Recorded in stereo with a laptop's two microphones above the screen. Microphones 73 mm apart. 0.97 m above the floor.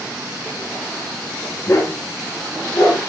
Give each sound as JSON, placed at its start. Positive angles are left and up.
{"t": 1.7, "sound": "a dog barking", "side_deg": 40, "distance_m": 3.0}